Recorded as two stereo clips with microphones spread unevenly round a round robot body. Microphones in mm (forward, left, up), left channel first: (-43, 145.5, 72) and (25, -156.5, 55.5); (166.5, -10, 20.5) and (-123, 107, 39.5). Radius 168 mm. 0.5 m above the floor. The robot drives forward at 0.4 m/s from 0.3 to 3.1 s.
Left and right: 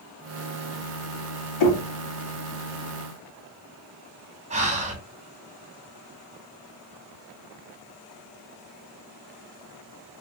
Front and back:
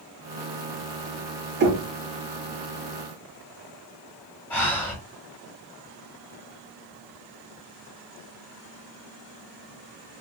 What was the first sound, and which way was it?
Knocking, 100° left.